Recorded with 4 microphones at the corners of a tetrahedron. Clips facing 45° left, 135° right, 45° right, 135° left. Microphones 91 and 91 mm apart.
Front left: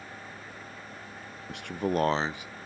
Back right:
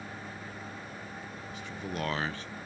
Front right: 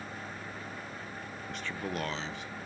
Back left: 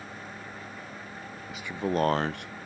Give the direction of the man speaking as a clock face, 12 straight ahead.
10 o'clock.